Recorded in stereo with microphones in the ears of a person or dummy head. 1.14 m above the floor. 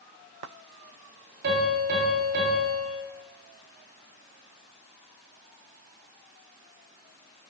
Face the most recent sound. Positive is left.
turn(degrees=-60)  # may be behind; listen again after turning